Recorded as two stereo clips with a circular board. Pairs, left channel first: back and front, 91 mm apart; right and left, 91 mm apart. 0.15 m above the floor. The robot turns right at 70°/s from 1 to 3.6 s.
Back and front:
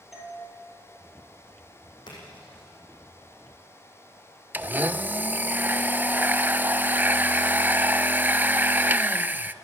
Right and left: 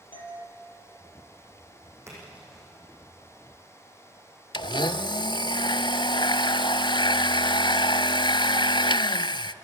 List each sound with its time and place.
0.1 s a doorbell: 85° right, 4.5 m
2.1 s a splash: 150° left, 8 m; by 2.6 s 175° right, 8 m
4.5 s a blender: 65° right, 0.5 m